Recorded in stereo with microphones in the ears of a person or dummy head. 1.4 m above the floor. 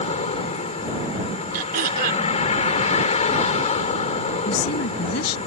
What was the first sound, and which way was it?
A vehicle, 45° left (ahead or behind).